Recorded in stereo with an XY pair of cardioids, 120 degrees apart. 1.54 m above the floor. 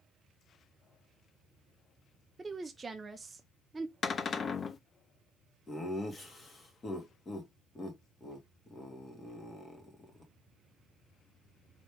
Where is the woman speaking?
20° right, 0.7 m.